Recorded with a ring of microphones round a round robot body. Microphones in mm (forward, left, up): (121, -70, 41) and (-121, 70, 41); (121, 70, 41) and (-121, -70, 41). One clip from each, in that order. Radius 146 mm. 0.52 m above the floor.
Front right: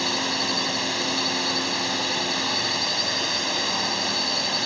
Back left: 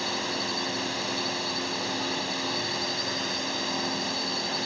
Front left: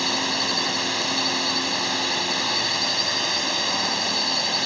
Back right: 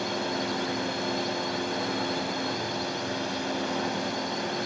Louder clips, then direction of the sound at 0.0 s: Front right 5 dB, front left 7 dB; 45° left.